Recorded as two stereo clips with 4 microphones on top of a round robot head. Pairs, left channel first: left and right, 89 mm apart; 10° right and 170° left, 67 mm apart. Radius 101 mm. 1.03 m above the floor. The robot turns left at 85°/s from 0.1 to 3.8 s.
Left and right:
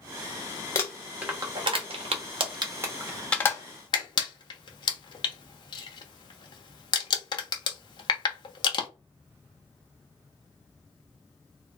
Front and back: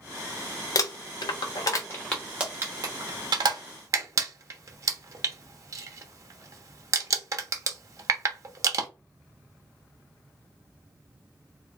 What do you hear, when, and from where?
0.8 s crumpling: 25° left, 1.0 m; by 8.9 s 130° left, 1.0 m